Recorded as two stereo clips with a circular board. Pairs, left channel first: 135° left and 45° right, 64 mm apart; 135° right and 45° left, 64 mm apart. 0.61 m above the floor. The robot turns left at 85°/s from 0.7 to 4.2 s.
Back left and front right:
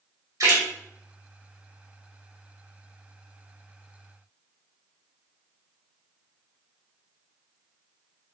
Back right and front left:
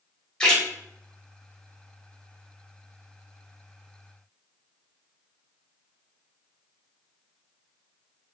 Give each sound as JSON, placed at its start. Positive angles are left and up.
{"t": 0.4, "sound": "a splash", "azimuth_deg": -55, "distance_m": 1.0}